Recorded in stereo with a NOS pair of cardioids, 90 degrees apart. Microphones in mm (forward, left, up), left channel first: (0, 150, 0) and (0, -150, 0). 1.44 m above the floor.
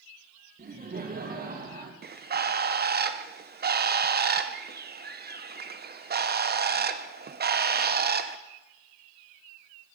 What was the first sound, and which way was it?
Laughter, 30° right.